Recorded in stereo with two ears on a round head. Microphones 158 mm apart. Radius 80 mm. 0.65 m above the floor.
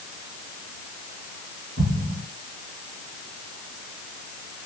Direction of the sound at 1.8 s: 55° right (ahead or behind).